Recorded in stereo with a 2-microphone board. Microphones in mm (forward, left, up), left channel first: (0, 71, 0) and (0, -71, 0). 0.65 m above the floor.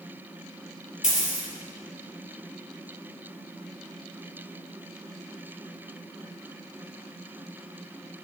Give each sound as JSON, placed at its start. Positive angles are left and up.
{"t": 1.0, "sound": "a dropped coin", "side_deg": 65, "distance_m": 3.5}